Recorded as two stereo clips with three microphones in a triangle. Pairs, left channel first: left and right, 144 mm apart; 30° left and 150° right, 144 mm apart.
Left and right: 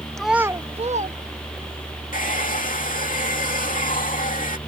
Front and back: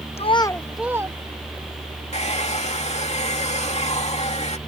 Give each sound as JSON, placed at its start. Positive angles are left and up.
{"t": 0.2, "sound": "a child speaking", "azimuth_deg": 5}
{"t": 2.1, "sound": "a hair dryer", "azimuth_deg": 70}